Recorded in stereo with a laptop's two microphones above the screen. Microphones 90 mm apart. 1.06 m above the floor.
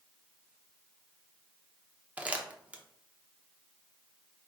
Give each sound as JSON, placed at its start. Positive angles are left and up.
{"t": 2.2, "sound": "crumpling", "side_deg": -15, "distance_m": 0.7}